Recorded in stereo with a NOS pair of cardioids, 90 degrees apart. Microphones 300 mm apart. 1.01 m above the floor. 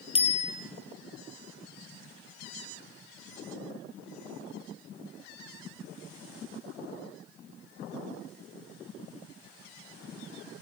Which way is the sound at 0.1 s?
20° left.